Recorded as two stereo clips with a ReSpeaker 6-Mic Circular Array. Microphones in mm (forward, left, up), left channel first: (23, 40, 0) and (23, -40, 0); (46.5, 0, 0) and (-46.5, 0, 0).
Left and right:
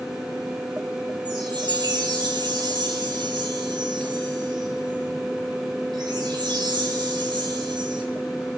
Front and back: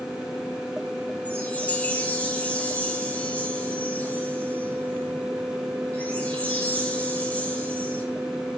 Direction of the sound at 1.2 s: 75° right.